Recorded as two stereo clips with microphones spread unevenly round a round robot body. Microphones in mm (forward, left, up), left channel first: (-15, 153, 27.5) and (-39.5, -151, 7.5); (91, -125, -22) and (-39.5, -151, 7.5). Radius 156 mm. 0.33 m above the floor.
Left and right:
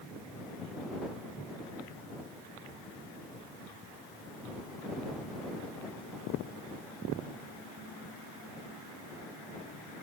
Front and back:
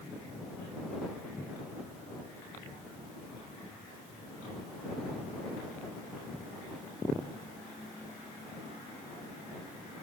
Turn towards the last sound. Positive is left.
No sound to turn to.